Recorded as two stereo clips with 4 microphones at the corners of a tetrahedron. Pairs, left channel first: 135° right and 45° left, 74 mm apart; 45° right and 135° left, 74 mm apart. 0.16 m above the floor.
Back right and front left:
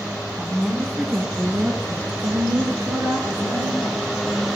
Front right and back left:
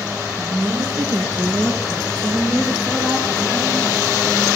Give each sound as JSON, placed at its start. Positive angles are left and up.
{"t": 0.4, "sound": "a woman speaking", "azimuth_deg": 135, "distance_m": 1.8}